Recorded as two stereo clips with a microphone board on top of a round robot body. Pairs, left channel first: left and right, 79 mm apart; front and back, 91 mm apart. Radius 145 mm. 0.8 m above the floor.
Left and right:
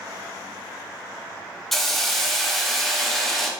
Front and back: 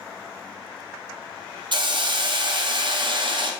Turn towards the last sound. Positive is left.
turn(degrees=175)